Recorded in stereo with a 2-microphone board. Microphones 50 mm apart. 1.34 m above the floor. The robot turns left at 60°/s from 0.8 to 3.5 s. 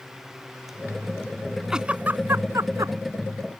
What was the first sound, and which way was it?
A giggle, 10° right (ahead or behind).